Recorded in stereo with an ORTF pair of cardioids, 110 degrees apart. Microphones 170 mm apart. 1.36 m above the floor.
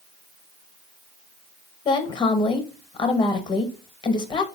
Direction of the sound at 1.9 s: 30° left.